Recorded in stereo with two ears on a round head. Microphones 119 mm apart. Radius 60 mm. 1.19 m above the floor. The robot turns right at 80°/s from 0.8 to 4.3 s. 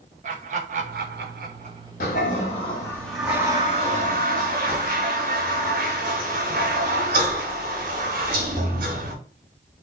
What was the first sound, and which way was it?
Laughter, 60° right (ahead or behind).